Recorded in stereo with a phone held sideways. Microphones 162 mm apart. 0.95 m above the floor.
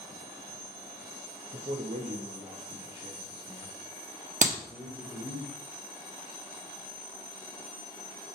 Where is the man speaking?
55° right (ahead or behind), 1.6 m; by 5.4 s 5° left (ahead or behind), 4 m.